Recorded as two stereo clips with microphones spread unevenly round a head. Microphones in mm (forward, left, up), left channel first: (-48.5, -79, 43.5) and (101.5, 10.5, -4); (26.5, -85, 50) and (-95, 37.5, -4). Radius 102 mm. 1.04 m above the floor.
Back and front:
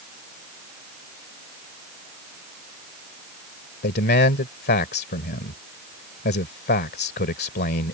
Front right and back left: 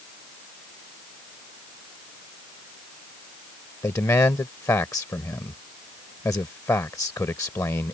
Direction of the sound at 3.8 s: 120° right.